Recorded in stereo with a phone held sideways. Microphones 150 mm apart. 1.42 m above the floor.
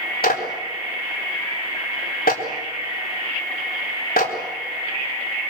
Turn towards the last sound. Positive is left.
turn(degrees=85)